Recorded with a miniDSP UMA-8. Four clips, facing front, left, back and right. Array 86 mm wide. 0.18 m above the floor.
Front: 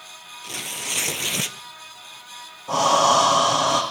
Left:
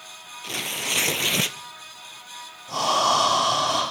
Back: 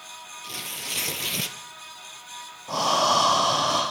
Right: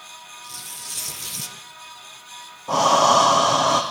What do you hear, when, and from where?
0.4 s tearing paper: 75° left, 0.9 m
2.7 s breathing: 70° right, 5 m